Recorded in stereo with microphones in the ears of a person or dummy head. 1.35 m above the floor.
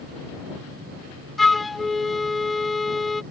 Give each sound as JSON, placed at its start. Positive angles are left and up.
{"t": 1.4, "sound": "a flute", "side_deg": 5}